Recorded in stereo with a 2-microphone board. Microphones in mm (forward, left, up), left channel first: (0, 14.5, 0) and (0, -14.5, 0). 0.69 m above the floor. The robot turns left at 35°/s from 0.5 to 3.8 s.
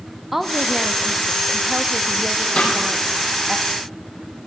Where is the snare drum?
45° left (ahead or behind), 6.5 m; by 2.7 s 40° left (ahead or behind), 6.5 m.